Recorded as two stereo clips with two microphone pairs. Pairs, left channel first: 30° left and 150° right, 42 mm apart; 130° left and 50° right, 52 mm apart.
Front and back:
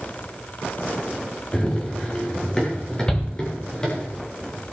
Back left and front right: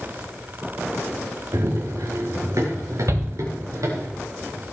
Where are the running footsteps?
45° right, 3.5 m; by 4.1 s 40° right, 6.5 m.